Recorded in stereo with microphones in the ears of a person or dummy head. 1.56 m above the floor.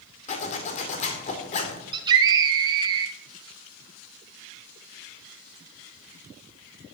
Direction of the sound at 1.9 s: 20° right (ahead or behind).